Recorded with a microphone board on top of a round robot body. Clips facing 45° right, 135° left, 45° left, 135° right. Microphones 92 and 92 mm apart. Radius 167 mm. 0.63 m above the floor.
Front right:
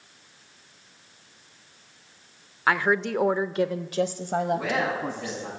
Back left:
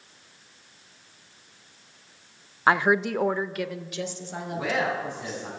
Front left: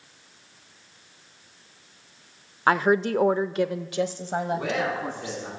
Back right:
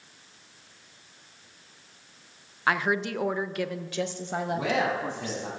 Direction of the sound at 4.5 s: 135° right.